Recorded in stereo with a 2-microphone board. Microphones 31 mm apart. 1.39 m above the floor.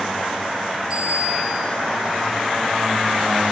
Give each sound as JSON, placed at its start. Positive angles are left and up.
{"t": 0.9, "sound": "a bicycle bell", "side_deg": -20, "distance_m": 8.5}